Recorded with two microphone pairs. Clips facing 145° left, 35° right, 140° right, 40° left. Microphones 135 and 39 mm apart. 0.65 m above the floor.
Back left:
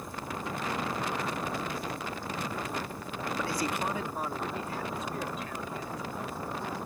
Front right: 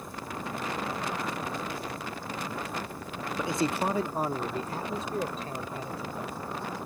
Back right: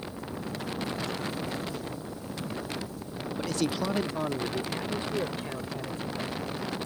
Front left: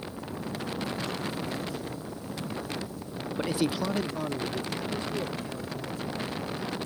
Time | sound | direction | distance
3.4 | a man speaking | 30° left | ?